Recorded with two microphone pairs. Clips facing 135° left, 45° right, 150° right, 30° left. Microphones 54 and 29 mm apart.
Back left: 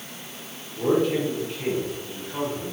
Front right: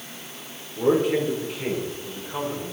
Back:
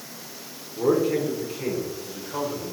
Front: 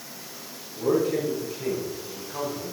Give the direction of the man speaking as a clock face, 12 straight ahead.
4 o'clock.